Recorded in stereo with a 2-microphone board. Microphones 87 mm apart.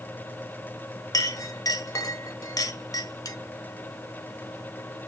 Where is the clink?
40° left (ahead or behind), 0.7 m.